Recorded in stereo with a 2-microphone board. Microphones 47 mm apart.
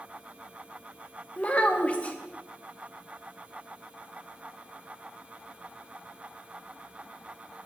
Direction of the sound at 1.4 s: 25° left (ahead or behind).